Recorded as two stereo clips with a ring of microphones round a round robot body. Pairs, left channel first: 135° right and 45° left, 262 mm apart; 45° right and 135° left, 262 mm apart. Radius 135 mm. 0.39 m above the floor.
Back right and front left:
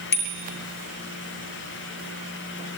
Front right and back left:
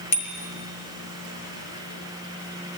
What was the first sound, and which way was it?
A bicycle bell, 80° right.